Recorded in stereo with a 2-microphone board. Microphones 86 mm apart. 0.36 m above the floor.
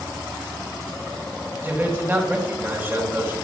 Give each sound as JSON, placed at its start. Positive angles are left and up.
{"t": 1.6, "sound": "a man speaking", "side_deg": -25, "distance_m": 1.9}